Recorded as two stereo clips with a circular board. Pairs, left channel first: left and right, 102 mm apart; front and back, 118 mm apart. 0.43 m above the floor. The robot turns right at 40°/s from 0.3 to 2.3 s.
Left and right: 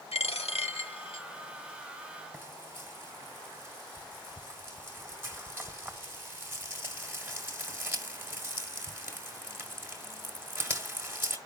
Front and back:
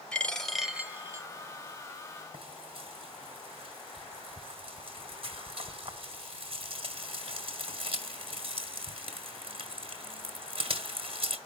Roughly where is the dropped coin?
Left.